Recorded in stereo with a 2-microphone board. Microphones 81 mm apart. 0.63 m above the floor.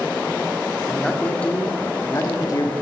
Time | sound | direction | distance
0.9 | a man speaking | 5° left (ahead or behind) | 1.5 m